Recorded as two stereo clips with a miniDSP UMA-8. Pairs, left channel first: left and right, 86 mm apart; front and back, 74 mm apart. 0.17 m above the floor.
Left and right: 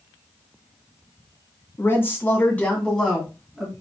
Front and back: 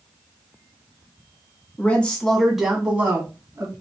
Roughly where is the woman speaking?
Ahead left.